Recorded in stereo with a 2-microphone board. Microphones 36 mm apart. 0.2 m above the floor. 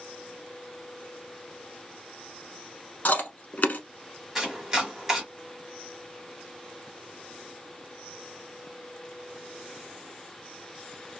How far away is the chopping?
About 1.3 m.